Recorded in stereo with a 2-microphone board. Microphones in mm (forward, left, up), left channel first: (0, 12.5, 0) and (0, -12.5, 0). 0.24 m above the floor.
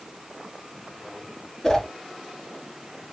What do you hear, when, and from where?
1.6 s a whoosh: 20° left (ahead or behind), 1.6 m